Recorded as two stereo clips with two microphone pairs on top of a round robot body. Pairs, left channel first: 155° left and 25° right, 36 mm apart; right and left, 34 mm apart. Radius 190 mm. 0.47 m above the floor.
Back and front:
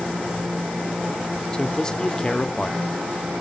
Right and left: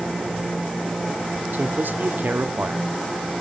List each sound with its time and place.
1.5 s a man speaking: 85° left, 1.8 m